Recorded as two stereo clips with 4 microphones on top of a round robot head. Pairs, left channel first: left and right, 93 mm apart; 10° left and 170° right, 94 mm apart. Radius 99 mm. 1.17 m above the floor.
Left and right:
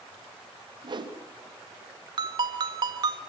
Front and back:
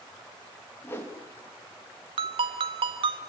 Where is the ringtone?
140° right, 1.3 m.